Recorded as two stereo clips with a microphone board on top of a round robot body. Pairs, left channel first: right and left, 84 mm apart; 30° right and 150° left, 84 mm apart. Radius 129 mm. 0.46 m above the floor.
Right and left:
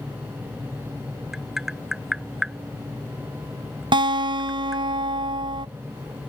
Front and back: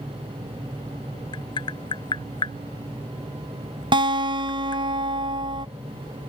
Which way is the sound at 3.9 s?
120° left.